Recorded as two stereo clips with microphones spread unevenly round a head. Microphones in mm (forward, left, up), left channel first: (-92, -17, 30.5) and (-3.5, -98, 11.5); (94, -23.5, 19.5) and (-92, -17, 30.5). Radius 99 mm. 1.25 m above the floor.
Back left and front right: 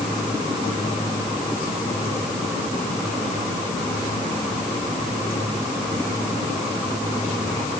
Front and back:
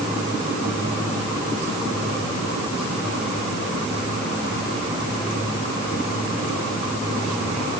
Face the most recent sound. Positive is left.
No sound to turn to.